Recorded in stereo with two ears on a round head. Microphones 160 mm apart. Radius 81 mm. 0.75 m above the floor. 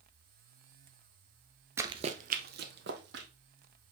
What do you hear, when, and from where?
1.8 s running footsteps: 15° right (ahead or behind), 0.8 m; by 3.3 s 70° right (ahead or behind), 2 m